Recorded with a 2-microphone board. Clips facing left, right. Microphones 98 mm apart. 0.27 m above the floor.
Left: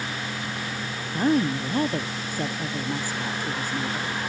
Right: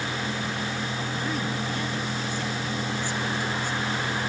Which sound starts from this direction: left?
A woman speaking, at 1.1 s.